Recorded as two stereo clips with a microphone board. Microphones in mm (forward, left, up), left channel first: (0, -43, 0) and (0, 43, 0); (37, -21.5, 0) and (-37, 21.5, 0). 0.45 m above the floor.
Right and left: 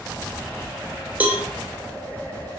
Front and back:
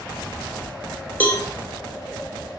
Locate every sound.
1.2 s a cowbell: 30° left, 1.0 m